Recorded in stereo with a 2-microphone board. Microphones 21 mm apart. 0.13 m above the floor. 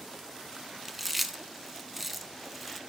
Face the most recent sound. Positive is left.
turn(degrees=-10)  # may be behind; listen again after turning